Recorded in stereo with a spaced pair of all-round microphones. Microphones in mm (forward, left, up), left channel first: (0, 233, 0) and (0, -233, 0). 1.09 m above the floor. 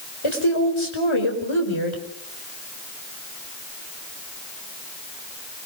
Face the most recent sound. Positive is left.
turn(degrees=70)  # may be behind; listen again after turning